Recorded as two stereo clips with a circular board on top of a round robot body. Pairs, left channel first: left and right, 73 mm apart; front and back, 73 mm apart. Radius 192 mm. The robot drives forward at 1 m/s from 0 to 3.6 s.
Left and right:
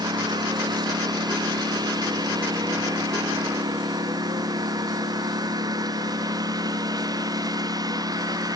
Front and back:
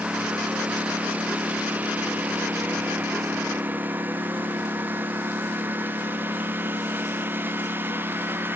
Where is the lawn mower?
105° right; by 8.6 s 120° right.